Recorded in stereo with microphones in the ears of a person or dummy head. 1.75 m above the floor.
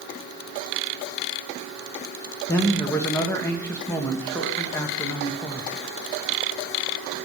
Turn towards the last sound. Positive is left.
turn(degrees=10)  # may be behind; listen again after turning